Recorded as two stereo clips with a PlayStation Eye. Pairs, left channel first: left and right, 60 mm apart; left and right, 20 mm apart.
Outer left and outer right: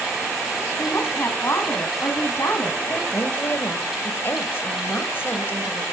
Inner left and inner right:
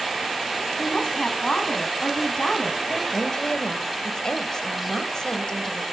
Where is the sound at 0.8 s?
45° left (ahead or behind), 2.5 m.